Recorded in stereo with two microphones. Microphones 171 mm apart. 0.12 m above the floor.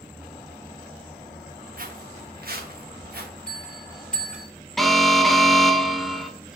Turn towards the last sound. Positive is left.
turn(degrees=0)  # may be behind; listen again after turning